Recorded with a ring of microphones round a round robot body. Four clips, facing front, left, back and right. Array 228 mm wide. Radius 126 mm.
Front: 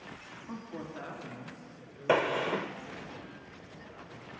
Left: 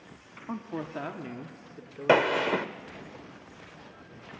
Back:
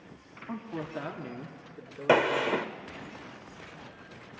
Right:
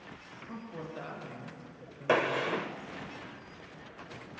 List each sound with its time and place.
0.5 s a woman speaking: 105° left, 1.6 m; by 3.1 s 135° left, 3.5 m
2.1 s a gunshot: 120° left, 0.6 m